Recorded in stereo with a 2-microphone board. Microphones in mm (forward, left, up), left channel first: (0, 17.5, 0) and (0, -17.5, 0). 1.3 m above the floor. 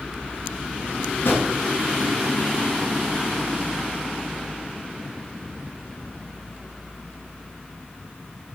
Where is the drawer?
70° left (ahead or behind), 6 m.